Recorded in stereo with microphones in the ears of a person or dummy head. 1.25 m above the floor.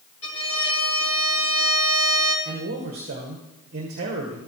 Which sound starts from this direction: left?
A violin, at 0.2 s.